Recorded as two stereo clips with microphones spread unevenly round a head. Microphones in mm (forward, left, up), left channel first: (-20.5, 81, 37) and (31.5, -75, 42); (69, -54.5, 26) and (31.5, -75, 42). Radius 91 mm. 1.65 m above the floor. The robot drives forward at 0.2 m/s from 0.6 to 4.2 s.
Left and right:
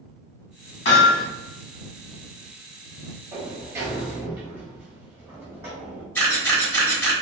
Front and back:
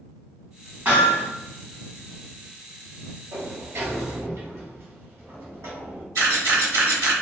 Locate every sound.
0.8 s hammering: 140° left, 1.6 m
3.3 s a sliding door: 145° right, 0.8 m; by 6.0 s 150° right, 1.0 m
6.2 s a camera shutter: 175° right, 1.0 m